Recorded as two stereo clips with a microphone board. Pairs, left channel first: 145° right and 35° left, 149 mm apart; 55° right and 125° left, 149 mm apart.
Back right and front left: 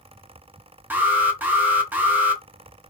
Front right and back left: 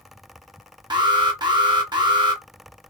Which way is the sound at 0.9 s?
100° left.